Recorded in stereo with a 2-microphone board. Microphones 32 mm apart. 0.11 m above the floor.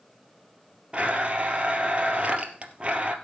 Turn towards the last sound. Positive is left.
turn(degrees=-35)  # may be behind; listen again after turning